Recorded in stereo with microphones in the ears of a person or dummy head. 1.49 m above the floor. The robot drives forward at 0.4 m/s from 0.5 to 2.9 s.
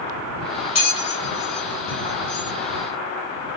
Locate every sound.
0.8 s a bell: 30° left (ahead or behind), 0.9 m; by 2.5 s 15° left (ahead or behind), 1.5 m